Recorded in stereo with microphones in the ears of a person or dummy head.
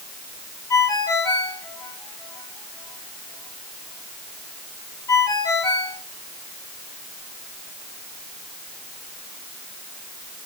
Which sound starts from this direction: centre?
A ringtone, at 0.7 s.